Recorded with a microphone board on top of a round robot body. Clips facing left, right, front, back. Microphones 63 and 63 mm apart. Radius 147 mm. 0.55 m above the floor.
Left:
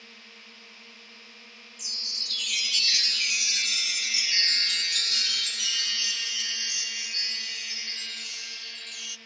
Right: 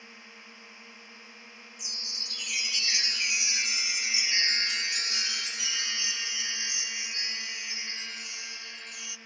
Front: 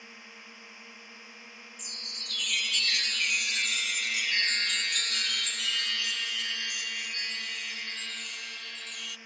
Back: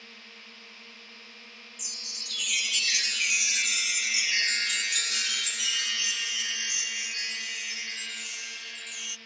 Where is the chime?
105° right.